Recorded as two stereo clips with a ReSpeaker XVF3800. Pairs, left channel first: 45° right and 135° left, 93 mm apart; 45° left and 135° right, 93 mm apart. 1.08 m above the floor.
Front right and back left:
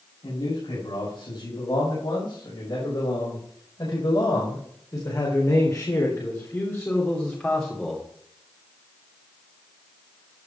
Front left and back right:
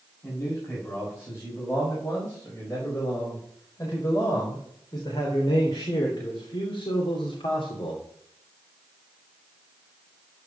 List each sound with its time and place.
0.2 s a man speaking: 20° right, 7 m; by 8.0 s 40° left, 3 m